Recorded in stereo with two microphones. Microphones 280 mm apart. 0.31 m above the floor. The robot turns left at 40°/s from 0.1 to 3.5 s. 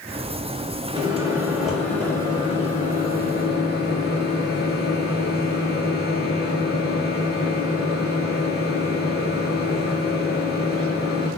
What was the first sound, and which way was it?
A microwave, 150° right.